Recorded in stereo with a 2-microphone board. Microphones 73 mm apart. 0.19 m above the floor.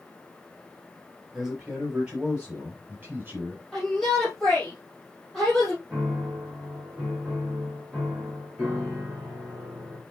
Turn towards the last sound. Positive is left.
turn(degrees=-15)  # may be behind; listen again after turning